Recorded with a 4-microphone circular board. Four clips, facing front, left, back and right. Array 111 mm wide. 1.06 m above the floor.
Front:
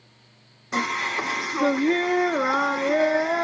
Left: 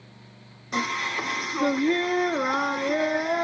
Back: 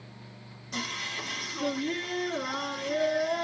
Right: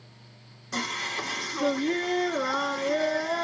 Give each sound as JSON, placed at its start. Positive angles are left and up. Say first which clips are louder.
{"t": 0.7, "sound": "singing", "louder": "left 5 dB, front 11 dB", "azimuth_deg": 15, "distance_m": 0.5}